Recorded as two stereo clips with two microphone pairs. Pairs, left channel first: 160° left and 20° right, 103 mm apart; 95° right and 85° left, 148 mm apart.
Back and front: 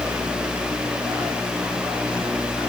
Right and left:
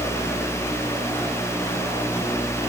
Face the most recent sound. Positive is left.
No sound to turn to.